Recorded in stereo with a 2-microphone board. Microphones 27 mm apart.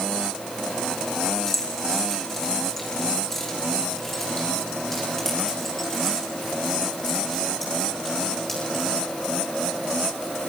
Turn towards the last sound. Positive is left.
turn(degrees=10)  # may be behind; listen again after turning